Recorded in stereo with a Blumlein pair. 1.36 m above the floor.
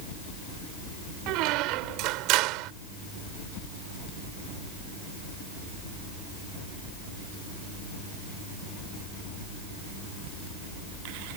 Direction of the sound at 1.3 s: 40° right.